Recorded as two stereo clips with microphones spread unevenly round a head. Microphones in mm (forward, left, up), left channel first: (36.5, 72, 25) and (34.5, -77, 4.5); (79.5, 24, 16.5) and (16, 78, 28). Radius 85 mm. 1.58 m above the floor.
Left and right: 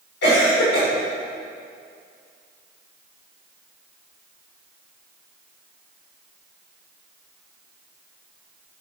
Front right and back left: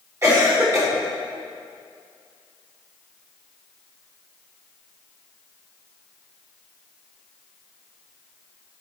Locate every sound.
0.2 s a cough: 85° left, 3.5 m